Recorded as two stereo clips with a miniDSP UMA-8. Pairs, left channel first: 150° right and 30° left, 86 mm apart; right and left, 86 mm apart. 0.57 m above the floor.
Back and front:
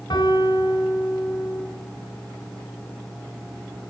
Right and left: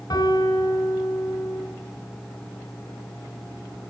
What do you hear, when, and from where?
0.1 s a piano: 120° right, 2.5 m